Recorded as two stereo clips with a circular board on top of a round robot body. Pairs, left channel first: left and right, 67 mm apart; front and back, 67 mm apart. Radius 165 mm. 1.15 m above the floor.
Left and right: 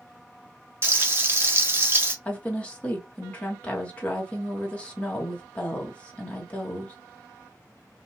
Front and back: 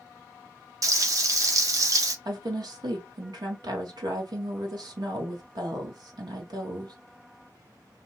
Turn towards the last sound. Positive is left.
turn(degrees=160)